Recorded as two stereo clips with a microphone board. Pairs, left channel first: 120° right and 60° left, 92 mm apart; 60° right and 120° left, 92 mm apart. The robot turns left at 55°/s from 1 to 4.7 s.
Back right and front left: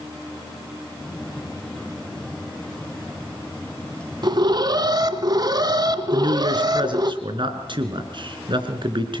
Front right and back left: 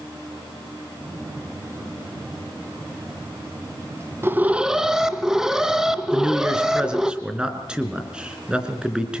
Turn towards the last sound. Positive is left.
turn(degrees=40)